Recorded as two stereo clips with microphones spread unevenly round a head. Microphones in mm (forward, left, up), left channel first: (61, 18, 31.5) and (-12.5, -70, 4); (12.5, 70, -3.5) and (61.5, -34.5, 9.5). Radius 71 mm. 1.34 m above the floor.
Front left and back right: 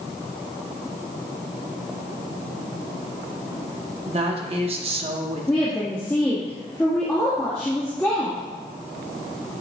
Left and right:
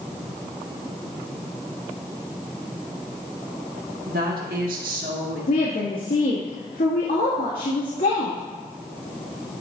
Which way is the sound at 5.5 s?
120° left.